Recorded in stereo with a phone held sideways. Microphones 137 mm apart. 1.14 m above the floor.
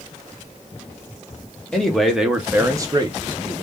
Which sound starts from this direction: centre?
A man speaking, at 1.7 s.